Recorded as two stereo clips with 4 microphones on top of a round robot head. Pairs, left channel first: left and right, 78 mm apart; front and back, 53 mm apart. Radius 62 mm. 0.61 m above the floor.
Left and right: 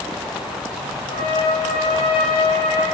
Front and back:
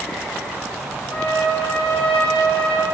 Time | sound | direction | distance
1.1 | a trumpet | 70° left | 10 m